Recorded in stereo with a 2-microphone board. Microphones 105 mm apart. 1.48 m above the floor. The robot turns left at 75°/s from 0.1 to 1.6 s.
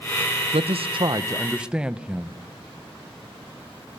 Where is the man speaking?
90° right, 1.1 m; by 2.4 s 170° right, 1.1 m.